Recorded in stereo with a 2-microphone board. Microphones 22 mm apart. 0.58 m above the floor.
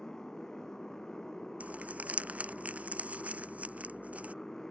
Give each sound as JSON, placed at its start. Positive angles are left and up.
{"t": 0.0, "sound": "a motorcycle", "side_deg": 25}
{"t": 1.6, "sound": "crumpling", "side_deg": -85}